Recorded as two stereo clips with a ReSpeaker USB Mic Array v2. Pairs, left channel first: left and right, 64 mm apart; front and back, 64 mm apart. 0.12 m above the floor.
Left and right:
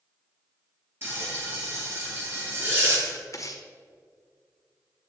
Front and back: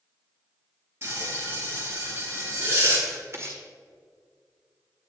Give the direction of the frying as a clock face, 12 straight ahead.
4 o'clock.